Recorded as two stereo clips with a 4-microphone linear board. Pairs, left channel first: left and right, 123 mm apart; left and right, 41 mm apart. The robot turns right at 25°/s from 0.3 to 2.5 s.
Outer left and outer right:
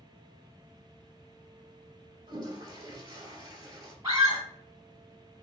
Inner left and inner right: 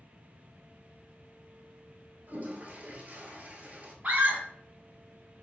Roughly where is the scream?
Right.